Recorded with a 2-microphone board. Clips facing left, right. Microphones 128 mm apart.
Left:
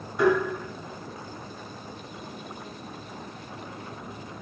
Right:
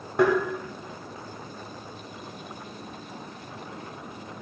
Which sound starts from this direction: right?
Tapping, at 0.2 s.